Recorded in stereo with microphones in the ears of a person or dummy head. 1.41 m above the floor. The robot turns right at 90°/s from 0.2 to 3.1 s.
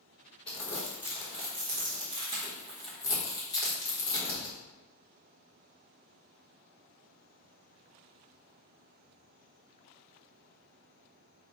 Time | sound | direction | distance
0.5 | crumpling | 25° left (ahead or behind) | 1.3 m